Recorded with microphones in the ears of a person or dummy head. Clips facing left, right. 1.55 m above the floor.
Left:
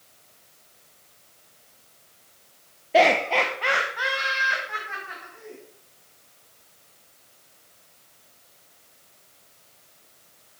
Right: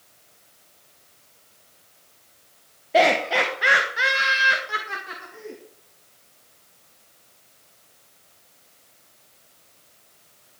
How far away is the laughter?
About 1.4 m.